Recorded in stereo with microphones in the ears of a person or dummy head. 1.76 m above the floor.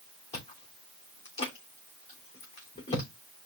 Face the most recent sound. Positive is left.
turn(degrees=30)  # may be behind; listen again after turning